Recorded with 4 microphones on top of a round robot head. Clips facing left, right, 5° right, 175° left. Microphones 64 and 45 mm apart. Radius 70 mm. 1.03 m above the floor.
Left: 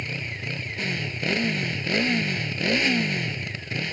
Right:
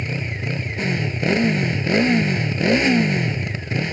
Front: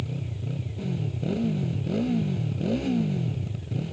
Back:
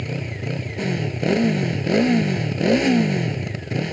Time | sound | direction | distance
0.0 | a motorcycle | 155° right | ?